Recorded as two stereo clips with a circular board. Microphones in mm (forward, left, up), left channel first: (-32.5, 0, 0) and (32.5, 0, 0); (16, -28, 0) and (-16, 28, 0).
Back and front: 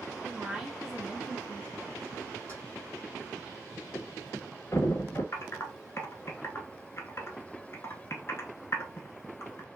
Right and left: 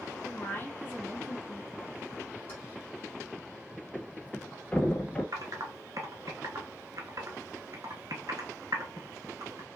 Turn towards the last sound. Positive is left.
turn(degrees=135)